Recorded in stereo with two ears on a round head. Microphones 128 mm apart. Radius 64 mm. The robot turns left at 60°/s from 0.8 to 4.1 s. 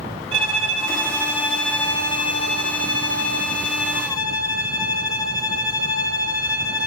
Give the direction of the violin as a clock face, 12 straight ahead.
4 o'clock.